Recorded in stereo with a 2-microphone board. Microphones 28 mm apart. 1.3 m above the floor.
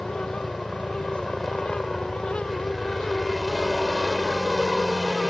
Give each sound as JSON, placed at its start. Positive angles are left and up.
{"t": 0.0, "sound": "a helicopter", "side_deg": 0}